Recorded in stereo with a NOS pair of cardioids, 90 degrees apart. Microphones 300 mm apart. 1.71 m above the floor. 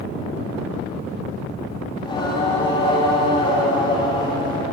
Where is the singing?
15° left, 3.5 m.